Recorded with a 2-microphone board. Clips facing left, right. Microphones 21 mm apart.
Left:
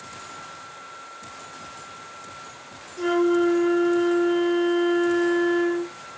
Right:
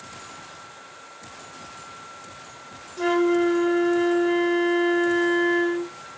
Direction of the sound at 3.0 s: 40° right (ahead or behind).